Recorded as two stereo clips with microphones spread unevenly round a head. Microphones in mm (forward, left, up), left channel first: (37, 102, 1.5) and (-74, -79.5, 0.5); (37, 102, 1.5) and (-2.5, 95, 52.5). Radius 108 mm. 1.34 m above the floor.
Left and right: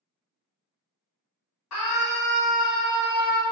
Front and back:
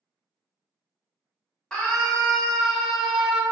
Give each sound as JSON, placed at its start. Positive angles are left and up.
{"t": 1.7, "sound": "a scream", "azimuth_deg": 75, "distance_m": 1.4}